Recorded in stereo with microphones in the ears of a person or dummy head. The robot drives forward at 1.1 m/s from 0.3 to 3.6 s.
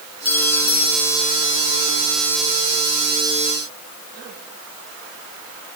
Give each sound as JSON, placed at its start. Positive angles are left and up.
{"t": 0.2, "sound": "a clink", "side_deg": 15}